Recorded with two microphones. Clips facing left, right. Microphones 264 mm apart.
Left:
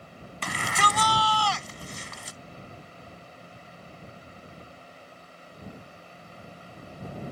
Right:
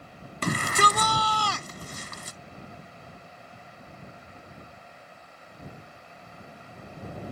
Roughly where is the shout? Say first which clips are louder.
Right 5 dB; right.